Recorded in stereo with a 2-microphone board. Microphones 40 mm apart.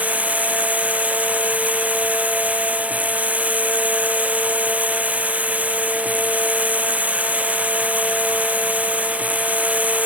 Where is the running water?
40° right (ahead or behind).